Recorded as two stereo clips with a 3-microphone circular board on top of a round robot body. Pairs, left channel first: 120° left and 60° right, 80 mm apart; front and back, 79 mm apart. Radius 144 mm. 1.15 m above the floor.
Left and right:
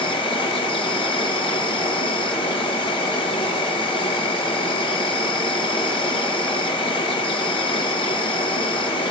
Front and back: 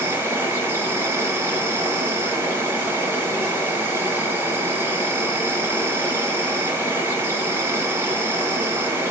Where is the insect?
120° left, 1.0 m.